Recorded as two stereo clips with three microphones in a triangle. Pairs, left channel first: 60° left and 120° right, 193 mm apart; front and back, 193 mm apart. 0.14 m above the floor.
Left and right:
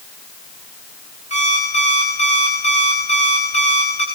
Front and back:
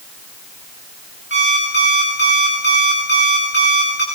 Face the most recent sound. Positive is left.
turn(degrees=5)